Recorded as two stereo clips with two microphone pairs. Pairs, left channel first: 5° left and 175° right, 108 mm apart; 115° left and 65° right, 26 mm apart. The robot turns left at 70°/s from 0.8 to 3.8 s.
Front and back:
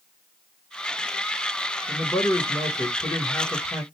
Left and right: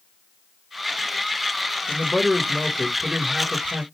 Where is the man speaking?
55° left, 1.5 m; by 3.8 s 80° right, 1.5 m.